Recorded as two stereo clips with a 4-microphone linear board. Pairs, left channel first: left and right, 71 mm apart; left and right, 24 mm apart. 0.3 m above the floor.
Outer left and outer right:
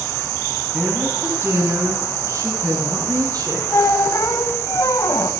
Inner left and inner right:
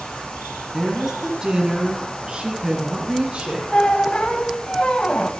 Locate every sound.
0.7 s a woman speaking: 20° right (ahead or behind), 2 m; by 3.6 s 50° right (ahead or behind), 5 m
3.7 s a squeak: 50° left (ahead or behind), 1.1 m